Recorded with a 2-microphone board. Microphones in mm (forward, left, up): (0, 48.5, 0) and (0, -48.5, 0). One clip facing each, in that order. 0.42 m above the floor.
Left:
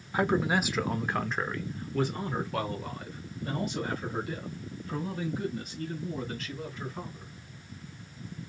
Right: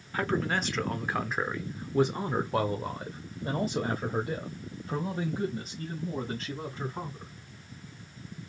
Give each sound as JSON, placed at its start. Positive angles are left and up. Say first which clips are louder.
{"t": 0.1, "sound": "a man speaking", "louder": "left 3 dB", "side_deg": 20, "distance_m": 1.0}